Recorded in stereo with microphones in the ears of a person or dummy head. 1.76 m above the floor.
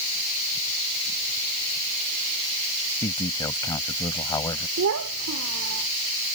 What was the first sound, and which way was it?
A man speaking, 20° left (ahead or behind).